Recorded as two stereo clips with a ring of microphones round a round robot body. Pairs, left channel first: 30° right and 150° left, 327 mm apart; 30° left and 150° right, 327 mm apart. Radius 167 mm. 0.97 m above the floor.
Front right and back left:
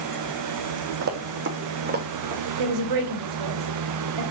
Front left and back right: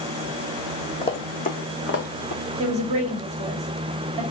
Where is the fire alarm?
I don't hear a fire alarm.